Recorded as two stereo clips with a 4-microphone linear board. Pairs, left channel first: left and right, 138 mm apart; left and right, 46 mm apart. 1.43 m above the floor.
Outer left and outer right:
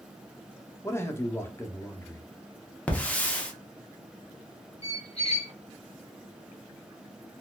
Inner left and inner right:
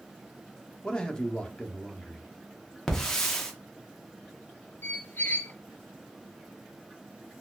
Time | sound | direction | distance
0.8 | a man speaking | 20° left (ahead or behind) | 0.6 m
2.9 | a hiss | 10° left (ahead or behind) | 0.7 m
4.8 | a squeak | 45° left (ahead or behind) | 0.5 m